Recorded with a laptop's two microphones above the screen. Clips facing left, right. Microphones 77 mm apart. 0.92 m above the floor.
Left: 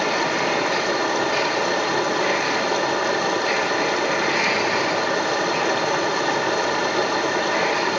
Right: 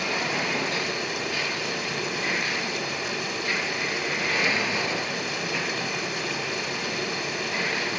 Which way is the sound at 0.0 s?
65° left (ahead or behind).